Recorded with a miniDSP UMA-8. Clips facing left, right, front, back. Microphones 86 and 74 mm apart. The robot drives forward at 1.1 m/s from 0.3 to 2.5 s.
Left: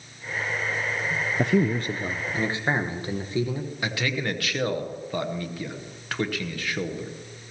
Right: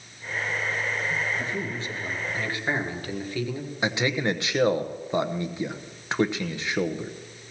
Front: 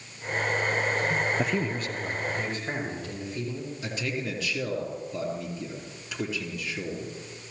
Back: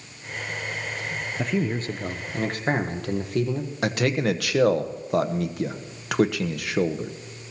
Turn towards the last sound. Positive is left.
turn(degrees=-160)